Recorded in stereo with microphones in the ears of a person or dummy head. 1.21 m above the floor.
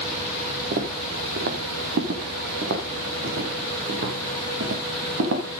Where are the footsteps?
45° right (ahead or behind), 1.7 m; by 5.6 s 70° right (ahead or behind), 4 m.